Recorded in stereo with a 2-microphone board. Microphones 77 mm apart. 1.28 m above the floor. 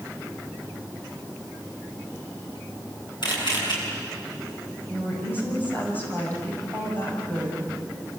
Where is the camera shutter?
75° left (ahead or behind), 7.5 m.